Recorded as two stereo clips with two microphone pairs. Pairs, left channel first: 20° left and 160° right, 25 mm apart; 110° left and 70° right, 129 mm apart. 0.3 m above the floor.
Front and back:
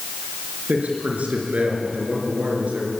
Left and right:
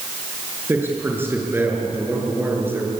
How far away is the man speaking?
About 5 m.